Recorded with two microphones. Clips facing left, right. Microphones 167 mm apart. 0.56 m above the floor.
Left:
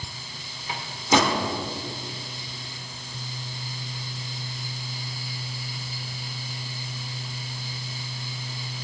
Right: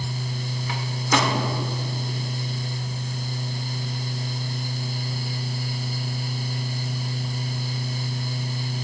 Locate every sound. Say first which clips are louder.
0.7 s a microwave: left 2 dB; 25° left (ahead or behind), 1.5 m